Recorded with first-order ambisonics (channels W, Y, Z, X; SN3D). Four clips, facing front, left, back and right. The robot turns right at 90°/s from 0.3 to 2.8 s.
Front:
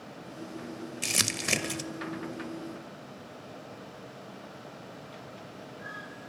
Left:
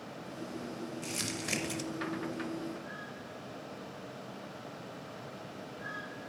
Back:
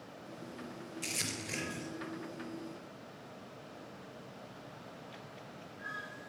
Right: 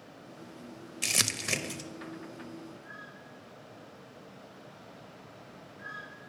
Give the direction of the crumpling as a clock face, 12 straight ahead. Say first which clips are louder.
Right 9 dB, front 10 dB; 2 o'clock.